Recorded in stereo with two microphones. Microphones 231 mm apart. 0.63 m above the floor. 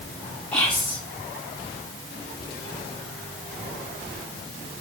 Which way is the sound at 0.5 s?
5° left (ahead or behind).